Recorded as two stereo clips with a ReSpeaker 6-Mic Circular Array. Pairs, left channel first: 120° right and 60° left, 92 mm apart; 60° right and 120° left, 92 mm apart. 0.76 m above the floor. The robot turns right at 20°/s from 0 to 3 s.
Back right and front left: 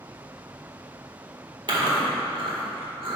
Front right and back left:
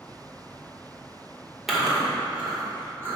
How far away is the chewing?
About 2.0 m.